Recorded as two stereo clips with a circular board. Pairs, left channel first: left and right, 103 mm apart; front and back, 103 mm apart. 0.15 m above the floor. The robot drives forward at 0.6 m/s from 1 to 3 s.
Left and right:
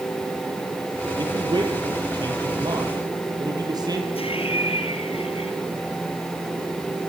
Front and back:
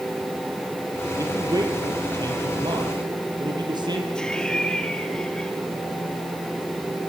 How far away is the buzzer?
No buzzer in this recording.